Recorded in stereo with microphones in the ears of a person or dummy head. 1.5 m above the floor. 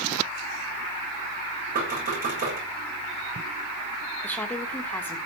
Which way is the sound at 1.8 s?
55° right (ahead or behind).